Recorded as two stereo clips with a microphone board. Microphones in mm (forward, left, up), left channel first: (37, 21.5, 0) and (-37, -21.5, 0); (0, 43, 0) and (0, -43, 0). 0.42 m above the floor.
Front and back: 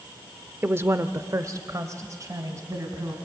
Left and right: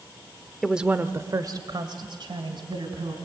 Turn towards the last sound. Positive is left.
turn(degrees=-100)